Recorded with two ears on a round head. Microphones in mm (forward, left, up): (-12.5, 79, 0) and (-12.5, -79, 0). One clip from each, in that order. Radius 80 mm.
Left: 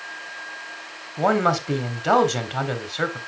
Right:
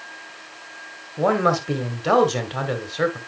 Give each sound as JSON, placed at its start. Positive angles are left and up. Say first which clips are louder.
{"t": 1.2, "sound": "a man speaking", "louder": "right 1 dB", "side_deg": 5, "distance_m": 1.4}